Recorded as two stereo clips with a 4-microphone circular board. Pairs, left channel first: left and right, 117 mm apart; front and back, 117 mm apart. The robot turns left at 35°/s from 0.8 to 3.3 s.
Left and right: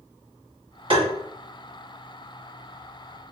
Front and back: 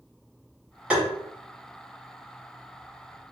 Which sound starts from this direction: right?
Tapping, at 0.9 s.